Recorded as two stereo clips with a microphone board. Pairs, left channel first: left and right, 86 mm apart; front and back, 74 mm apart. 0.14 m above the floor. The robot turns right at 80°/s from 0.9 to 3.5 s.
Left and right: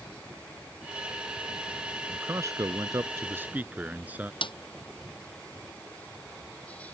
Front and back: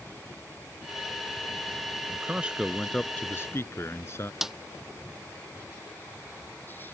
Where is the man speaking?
140° right; by 4.3 s 30° right.